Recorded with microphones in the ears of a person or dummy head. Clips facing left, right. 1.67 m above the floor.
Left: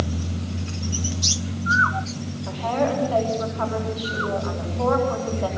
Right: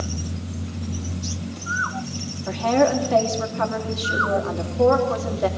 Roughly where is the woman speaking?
Right.